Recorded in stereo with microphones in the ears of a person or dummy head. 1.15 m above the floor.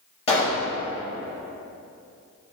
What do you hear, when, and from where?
0.3 s a pop: 30° left (ahead or behind), 0.8 m